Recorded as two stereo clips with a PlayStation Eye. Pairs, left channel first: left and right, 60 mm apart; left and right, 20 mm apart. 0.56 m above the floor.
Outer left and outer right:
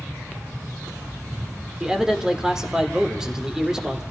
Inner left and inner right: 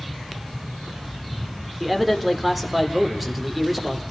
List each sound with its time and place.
1.8 s a man speaking: 10° right (ahead or behind), 2.0 m